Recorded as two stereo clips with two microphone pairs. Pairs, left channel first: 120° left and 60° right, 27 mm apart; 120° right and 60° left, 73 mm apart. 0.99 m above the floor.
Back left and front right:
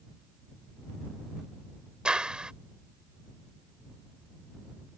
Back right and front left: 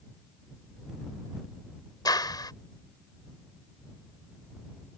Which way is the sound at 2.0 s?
110° right.